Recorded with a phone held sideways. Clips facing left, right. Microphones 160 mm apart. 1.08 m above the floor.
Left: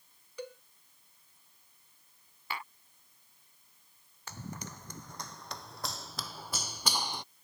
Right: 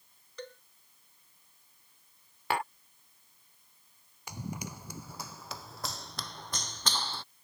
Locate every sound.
0.4 s a cowbell: 10° left (ahead or behind)
2.5 s tapping: 80° right
4.3 s running footsteps: 15° right (ahead or behind); by 7.2 s 15° left (ahead or behind)